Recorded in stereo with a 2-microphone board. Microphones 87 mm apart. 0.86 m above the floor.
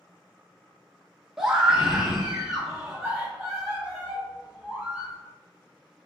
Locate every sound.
1.4 s a scream: 5° right (ahead or behind), 0.7 m